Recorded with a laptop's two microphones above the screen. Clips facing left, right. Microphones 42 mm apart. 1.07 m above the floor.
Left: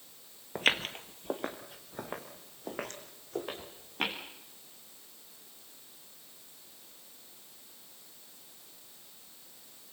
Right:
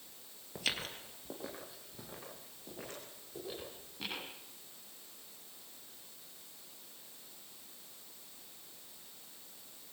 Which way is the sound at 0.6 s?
45° left (ahead or behind).